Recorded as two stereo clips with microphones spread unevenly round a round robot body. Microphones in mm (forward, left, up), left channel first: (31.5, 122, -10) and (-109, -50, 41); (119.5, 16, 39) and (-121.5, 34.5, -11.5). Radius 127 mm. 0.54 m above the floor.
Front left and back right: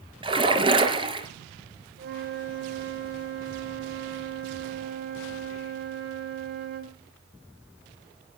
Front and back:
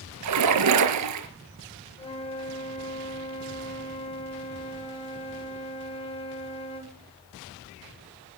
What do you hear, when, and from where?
0.2 s a splash: 165° left, 3.5 m
2.0 s a flute: 75° right, 3 m